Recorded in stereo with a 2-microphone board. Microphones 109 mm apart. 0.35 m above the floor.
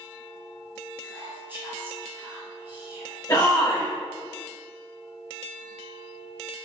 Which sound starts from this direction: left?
A shout, at 3.3 s.